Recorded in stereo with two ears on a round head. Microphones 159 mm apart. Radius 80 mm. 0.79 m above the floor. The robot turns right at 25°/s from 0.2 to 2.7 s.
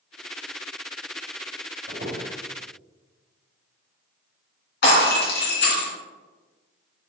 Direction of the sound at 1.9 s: 50° right (ahead or behind).